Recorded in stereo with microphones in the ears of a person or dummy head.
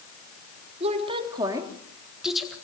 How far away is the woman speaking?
About 3 m.